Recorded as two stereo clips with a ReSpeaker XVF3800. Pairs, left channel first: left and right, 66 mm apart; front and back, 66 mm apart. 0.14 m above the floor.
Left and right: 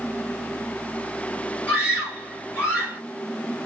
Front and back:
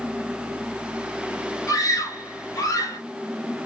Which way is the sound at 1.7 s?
20° left.